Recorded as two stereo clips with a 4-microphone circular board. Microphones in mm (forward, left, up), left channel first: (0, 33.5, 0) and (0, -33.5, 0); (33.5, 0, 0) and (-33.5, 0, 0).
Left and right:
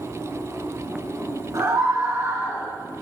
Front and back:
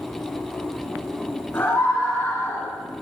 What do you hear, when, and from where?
1.5 s a scream: 55° right, 8 m; by 2.7 s 50° right, 7.5 m